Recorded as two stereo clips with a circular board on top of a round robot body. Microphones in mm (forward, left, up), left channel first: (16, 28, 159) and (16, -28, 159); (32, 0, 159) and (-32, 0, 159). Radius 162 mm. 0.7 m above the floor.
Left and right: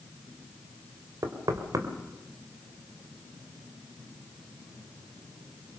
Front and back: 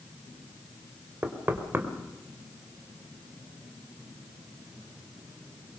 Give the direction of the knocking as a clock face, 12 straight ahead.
4 o'clock.